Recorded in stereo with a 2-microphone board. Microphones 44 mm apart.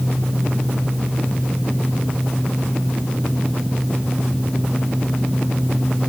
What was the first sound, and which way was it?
Only background noise.